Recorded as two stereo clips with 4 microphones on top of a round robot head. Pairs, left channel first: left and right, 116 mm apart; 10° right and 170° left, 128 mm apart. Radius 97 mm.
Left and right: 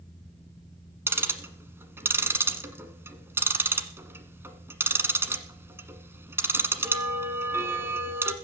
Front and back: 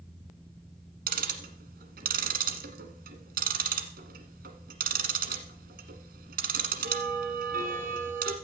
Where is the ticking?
160° right, 1.4 m.